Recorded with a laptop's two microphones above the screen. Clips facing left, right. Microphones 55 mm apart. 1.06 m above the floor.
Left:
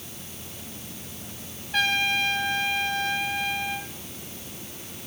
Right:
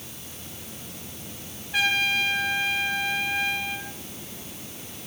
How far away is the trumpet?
About 3 m.